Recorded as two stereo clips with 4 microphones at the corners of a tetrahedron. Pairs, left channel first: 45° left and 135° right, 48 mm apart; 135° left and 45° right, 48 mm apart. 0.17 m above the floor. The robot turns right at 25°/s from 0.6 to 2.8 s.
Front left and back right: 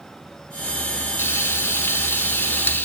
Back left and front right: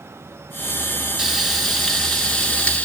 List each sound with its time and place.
1.2 s frying: 35° left, 0.9 m; by 2.9 s 75° left, 0.9 m